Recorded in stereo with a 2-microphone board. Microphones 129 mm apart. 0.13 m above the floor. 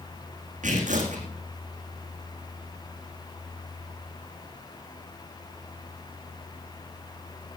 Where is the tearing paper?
75° right (ahead or behind), 4 m.